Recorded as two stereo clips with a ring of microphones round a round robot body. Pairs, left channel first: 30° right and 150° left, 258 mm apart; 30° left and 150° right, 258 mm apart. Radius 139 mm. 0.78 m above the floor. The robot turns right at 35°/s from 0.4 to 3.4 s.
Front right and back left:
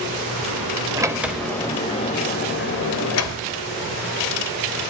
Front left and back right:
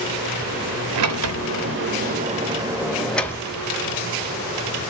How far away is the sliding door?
About 0.6 m.